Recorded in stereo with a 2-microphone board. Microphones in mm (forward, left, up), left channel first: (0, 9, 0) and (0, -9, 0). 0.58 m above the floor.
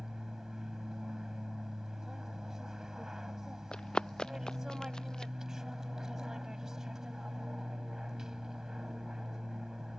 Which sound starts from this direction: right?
An aircraft, at 0.0 s.